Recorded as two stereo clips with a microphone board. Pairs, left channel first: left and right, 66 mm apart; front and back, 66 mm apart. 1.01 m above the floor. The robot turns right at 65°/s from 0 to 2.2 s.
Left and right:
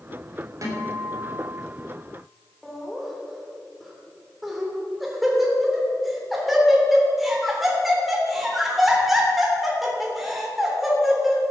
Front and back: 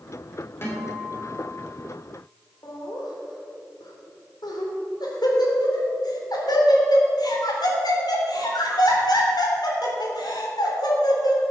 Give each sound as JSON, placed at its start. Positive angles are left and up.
{"t": 0.6, "sound": "a guitar", "azimuth_deg": -55, "distance_m": 3.5}
{"t": 2.6, "sound": "laughter", "azimuth_deg": 0, "distance_m": 3.0}